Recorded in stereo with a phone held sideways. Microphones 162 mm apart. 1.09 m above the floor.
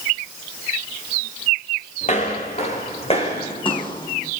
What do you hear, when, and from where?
2.0 s footsteps: 45° left (ahead or behind), 5.5 m; by 4.3 s 25° left (ahead or behind), 4 m